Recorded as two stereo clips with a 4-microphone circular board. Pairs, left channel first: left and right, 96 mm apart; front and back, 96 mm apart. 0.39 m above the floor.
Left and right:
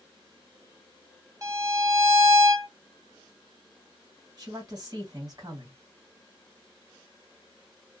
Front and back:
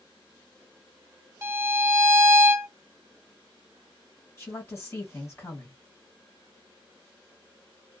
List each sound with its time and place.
1.4 s a violin: 130° right, 0.7 m
4.4 s a woman speaking: 55° right, 2 m